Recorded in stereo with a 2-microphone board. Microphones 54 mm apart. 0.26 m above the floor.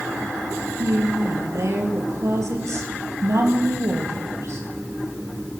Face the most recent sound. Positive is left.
turn(degrees=-80)